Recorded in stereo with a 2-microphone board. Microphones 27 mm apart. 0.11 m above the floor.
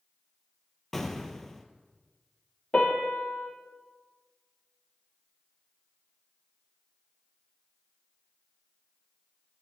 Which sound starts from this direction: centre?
An explosion, at 0.9 s.